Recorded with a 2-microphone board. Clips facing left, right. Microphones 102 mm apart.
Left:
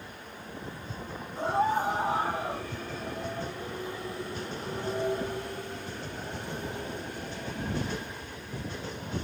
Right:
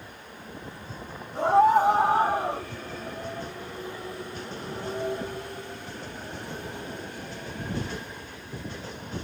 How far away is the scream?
About 4 m.